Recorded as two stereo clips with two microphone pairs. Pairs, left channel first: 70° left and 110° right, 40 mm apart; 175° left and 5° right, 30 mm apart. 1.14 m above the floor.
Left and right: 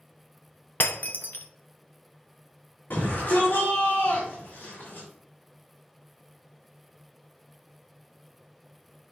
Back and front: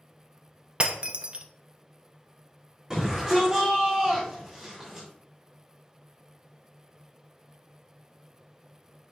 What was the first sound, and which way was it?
Breaking glass, 45° left.